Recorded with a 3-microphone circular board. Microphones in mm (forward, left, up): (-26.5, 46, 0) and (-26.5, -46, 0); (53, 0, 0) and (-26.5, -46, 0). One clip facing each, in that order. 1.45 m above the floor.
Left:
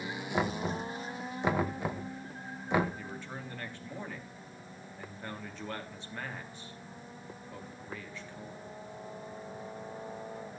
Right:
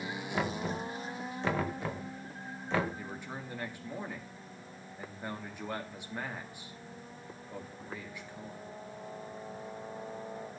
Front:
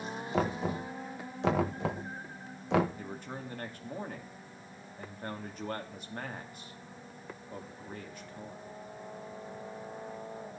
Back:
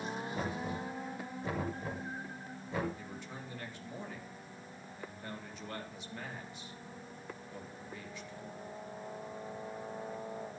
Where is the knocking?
15° left, 1.6 m.